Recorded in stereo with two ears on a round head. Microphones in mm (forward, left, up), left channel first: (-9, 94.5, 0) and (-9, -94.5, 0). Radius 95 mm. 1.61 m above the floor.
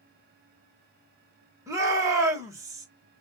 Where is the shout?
15° right (ahead or behind), 1.8 m.